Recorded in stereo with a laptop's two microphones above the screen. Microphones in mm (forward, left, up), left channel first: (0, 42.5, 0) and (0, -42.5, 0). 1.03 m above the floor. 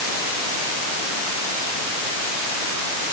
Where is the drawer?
No drawer in this recording.